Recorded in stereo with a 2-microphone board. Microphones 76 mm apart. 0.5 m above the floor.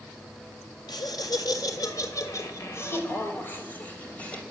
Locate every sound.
0.9 s laughter: 60° left (ahead or behind), 2.5 m; by 4.4 s 15° left (ahead or behind), 3 m